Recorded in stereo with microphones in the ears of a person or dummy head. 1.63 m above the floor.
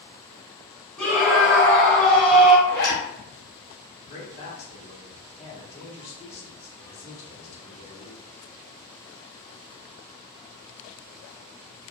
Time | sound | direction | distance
1.0 | a scream | 5° left (ahead or behind) | 1.2 m
2.7 | a zipper | 50° left (ahead or behind) | 1.0 m
4.1 | a man speaking | 35° left (ahead or behind) | 1.4 m